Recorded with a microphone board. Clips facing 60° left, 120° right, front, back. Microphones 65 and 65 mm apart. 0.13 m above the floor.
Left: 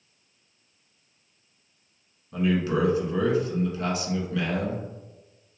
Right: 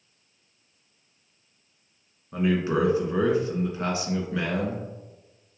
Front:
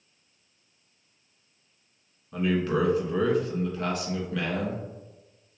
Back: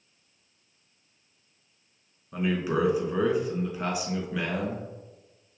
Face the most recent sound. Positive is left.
turn(degrees=-115)